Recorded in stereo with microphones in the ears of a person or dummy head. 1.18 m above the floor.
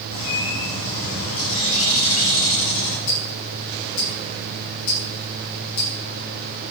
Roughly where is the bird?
Left.